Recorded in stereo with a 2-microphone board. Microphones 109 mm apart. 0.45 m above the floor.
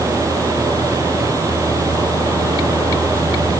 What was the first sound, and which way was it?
Only background noise.